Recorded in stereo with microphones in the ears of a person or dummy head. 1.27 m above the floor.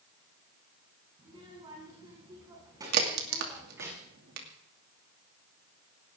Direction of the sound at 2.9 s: 60° right (ahead or behind).